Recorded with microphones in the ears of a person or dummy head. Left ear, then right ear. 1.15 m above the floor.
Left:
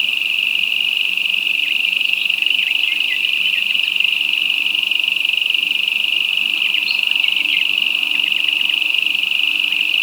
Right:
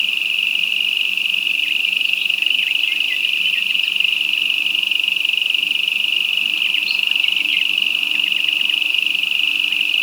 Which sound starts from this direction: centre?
An insect, at 0.0 s.